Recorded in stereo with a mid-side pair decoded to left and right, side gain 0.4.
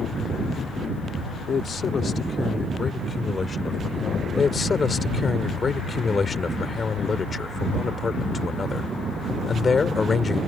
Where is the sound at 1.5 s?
55° left; by 5.4 s 20° left.